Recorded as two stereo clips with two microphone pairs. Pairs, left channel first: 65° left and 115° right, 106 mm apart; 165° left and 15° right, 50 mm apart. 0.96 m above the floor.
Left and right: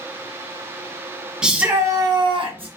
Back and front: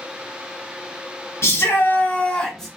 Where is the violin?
No violin in this recording.